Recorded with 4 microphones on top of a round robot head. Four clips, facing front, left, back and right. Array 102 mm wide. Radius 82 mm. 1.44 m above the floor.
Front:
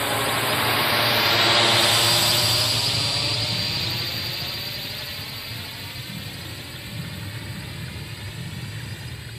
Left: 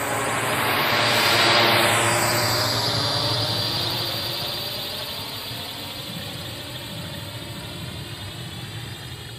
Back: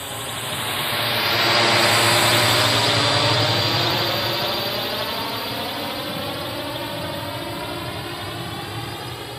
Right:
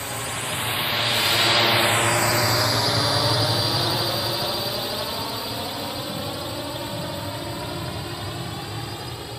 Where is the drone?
45° left; by 9.4 s 150° right.